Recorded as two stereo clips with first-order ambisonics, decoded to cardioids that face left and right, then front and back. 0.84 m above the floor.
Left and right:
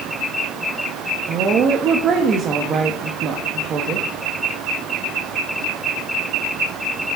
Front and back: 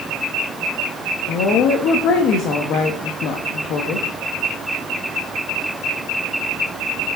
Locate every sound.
1.3 s a woman speaking: 35° right, 0.8 m